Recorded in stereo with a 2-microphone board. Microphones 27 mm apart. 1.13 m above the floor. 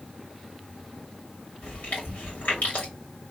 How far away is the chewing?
About 2 m.